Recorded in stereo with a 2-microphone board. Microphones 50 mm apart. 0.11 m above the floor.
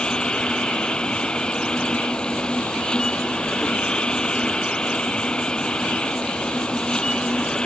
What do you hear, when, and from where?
0.0 s an insect: 20° left (ahead or behind)